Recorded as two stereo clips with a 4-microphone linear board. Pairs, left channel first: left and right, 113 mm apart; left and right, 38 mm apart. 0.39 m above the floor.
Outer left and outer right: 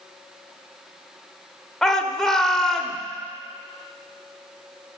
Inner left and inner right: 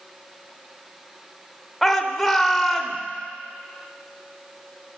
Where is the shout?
5° left (ahead or behind), 0.9 m.